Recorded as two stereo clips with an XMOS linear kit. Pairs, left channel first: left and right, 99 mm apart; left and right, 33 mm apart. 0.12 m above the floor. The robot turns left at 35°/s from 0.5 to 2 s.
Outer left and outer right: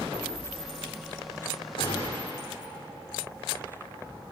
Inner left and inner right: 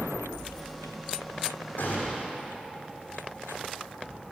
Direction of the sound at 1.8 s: 55° left (ahead or behind).